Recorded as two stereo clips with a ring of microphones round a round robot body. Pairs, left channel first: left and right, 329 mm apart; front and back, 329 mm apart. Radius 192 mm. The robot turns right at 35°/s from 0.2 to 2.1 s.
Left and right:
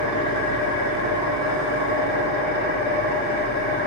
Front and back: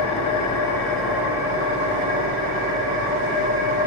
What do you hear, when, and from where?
0.0 s an engine running: 60° left, 1.4 m; by 3.9 s 130° left, 1.4 m